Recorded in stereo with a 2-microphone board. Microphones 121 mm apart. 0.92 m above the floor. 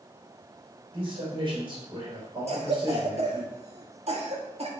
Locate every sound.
0.9 s a man speaking: 45° right (ahead or behind), 4 m
2.5 s a cough: 60° right (ahead or behind), 1.8 m